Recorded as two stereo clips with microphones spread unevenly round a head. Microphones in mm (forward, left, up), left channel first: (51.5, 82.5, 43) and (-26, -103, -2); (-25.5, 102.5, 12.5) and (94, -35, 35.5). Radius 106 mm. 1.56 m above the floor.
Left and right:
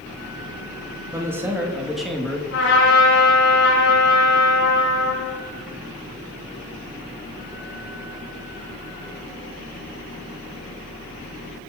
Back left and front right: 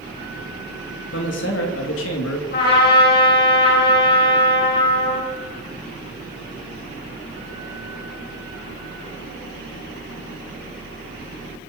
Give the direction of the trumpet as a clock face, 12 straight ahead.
9 o'clock.